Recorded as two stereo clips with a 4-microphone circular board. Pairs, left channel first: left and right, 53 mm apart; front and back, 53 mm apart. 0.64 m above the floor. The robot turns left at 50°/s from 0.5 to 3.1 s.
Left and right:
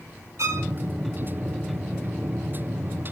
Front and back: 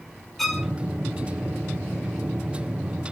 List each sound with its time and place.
0.4 s a violin: 90° right, 1.8 m; by 0.7 s 100° right, 1.8 m